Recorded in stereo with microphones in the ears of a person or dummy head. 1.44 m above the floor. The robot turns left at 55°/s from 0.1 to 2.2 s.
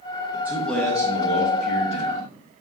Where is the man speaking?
165° right, 1.2 m; by 2.3 s 95° left, 1.2 m.